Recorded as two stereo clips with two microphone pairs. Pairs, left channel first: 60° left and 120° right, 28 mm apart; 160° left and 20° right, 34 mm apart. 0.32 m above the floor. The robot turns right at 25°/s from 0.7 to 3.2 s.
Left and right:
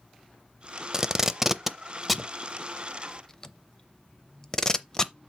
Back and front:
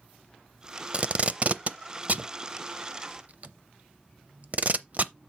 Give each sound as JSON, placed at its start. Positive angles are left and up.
{"t": 0.9, "sound": "tape being pulled", "azimuth_deg": -60, "distance_m": 0.5}